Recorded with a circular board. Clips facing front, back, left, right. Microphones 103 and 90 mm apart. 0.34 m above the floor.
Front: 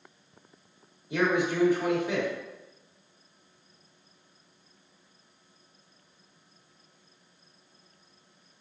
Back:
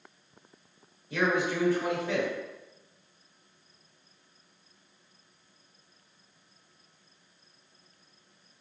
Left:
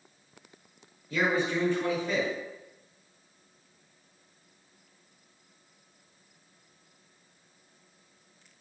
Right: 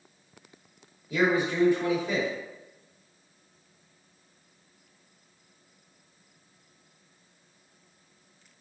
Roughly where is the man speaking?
Ahead right.